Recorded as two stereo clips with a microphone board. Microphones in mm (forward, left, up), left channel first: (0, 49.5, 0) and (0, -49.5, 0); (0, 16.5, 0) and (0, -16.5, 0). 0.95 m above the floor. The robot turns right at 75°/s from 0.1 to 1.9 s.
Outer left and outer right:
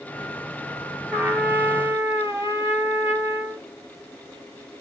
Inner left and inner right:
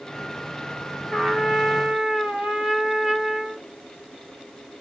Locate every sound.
1.1 s a trumpet: 15° right (ahead or behind), 0.9 m; by 3.7 s 30° right (ahead or behind), 0.9 m